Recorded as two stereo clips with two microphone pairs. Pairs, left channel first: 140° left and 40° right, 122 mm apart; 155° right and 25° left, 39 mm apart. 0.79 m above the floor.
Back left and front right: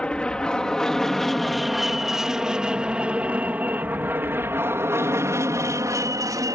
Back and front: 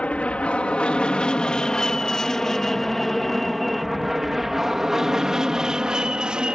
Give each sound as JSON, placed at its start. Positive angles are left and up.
{"t": 0.0, "sound": "an aircraft", "azimuth_deg": -145}